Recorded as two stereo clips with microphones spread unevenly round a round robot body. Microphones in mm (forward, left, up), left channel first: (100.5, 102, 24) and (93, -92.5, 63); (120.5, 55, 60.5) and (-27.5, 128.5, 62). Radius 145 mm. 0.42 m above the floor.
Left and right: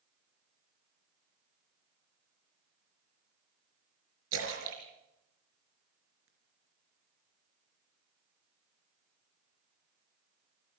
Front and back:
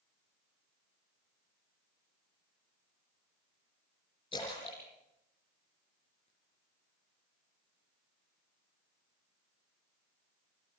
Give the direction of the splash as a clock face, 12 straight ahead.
3 o'clock.